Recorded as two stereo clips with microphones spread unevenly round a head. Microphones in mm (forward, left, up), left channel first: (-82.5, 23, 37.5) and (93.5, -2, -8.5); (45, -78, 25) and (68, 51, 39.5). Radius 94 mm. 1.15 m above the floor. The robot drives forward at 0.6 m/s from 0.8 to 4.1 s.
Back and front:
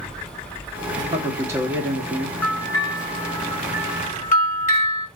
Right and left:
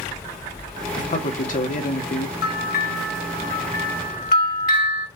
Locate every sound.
1.0 s a man speaking: 75° right, 2.5 m; by 2.3 s 95° right, 2.5 m
2.4 s a bell: 105° right, 1.4 m; by 5.1 s 135° right, 2.0 m